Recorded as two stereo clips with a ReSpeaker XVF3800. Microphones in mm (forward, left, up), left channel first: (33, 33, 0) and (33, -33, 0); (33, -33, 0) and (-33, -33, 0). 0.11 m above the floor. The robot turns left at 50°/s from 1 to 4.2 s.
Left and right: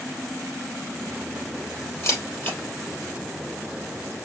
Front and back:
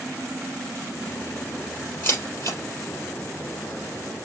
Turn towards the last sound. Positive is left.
turn(degrees=-55)